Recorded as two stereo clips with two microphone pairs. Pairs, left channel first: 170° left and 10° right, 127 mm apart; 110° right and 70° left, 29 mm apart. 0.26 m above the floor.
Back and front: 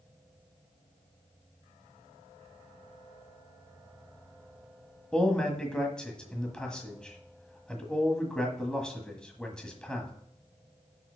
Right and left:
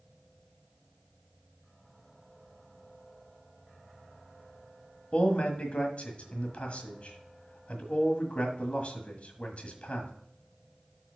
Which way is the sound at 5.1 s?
110° right.